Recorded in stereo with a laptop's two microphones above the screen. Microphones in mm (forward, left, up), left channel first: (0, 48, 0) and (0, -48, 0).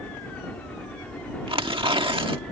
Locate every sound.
0.0 s a helicopter: 15° left (ahead or behind); by 2.5 s 10° left (ahead or behind)
1.5 s tearing paper: 65° right (ahead or behind)